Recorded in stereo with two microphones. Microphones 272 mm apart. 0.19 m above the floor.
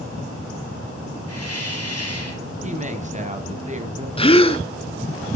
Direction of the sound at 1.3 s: 65° left (ahead or behind).